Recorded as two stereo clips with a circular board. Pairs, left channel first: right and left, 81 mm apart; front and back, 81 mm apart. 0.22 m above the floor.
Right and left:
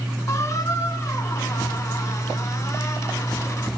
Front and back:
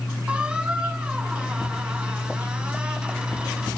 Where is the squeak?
110° right, 0.7 m.